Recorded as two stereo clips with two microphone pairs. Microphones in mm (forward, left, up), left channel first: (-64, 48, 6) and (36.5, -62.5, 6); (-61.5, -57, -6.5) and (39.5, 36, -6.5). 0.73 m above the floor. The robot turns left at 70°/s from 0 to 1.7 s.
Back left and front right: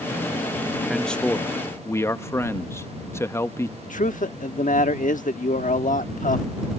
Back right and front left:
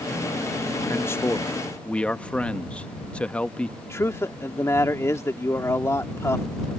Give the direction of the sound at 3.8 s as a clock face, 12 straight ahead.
7 o'clock.